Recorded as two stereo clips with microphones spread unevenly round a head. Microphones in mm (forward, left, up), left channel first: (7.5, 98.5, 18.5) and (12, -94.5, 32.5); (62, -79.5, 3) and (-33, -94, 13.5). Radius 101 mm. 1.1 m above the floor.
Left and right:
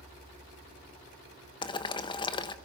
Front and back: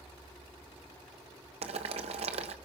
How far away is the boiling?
About 1.0 m.